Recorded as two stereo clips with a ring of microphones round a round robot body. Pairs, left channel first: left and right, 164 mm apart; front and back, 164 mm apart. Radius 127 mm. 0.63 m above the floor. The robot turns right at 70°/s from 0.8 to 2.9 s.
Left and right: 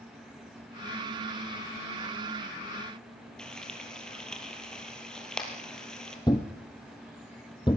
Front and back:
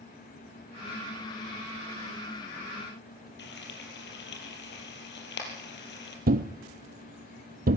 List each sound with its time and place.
3.4 s frying: 5° left, 5 m
6.3 s a thud: 160° left, 1.0 m